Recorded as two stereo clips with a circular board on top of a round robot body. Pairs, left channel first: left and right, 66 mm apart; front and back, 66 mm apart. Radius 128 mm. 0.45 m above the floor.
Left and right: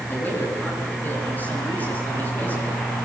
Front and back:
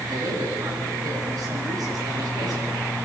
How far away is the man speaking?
About 7.5 m.